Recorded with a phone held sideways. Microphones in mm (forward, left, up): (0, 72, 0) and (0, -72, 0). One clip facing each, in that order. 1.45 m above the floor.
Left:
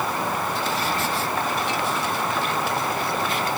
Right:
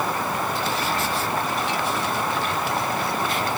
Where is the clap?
I don't hear a clap.